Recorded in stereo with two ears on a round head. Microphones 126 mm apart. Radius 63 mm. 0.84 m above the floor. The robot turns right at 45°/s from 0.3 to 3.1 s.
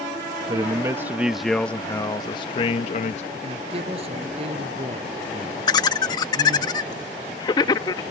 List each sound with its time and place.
0.5 s a man speaking: 40° right; by 3.2 s 75° left
3.4 s a woman speaking: 50° right (ahead or behind)
5.7 s laughter: 30° left (ahead or behind)